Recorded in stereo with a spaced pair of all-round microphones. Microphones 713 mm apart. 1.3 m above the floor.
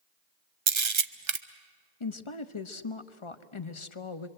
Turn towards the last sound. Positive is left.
turn(degrees=45)  # may be behind; listen again after turning